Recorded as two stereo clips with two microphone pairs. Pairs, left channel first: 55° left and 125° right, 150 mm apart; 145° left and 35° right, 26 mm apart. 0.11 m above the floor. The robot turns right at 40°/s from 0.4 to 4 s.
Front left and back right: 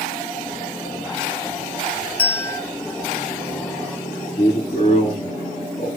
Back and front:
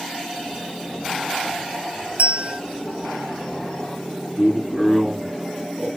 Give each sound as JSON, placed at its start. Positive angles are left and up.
{"t": 2.2, "sound": "a bell", "azimuth_deg": -30, "distance_m": 0.7}
{"t": 4.3, "sound": "a man speaking", "azimuth_deg": 70, "distance_m": 3.0}